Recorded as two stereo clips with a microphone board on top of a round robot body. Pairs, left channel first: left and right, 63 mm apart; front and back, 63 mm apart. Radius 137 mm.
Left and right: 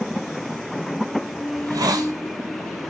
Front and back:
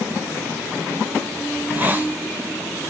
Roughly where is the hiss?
Behind right.